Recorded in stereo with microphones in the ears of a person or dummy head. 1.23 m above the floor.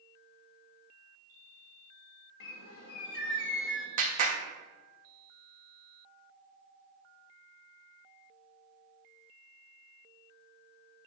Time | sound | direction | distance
2.4 | a bird | 70° left (ahead or behind) | 1.0 m
4.0 | a clap | 35° right (ahead or behind) | 1.2 m